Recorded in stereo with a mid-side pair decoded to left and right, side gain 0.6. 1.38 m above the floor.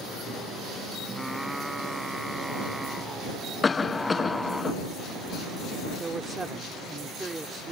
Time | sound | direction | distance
1.1 | singing | 5° right | ?
3.6 | a cough | 25° left | ?
6.0 | a man speaking | 20° right | ?